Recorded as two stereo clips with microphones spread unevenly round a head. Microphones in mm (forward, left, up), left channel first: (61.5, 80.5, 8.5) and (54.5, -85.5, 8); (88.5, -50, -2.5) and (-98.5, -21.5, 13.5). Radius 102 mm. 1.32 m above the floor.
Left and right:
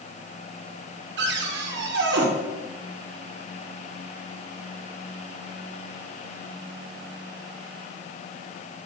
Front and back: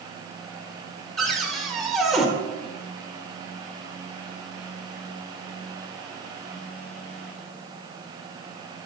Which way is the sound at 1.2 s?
95° right.